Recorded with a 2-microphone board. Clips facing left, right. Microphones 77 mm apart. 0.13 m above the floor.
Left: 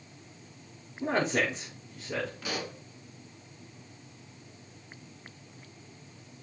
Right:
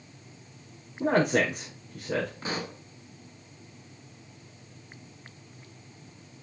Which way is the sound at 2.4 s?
35° right (ahead or behind).